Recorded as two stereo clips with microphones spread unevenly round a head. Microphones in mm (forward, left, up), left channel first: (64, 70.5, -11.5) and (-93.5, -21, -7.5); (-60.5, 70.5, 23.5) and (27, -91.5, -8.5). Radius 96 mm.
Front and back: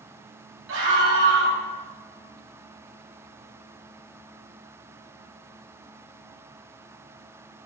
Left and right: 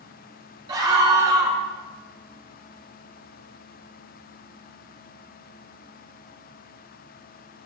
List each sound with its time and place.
0.7 s a scream: 135° right, 5.5 m